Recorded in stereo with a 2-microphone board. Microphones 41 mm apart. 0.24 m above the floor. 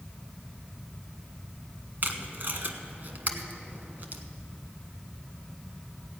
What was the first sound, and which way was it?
Tape being pulled, 50° right (ahead or behind).